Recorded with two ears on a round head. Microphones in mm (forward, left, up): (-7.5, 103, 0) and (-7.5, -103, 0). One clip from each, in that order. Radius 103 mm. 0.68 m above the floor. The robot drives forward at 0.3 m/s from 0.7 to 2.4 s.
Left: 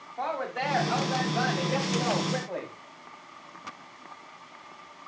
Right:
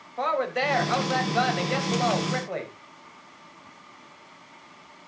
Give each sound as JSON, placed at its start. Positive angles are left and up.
{"t": 0.2, "sound": "a woman speaking", "side_deg": -75, "distance_m": 4.5}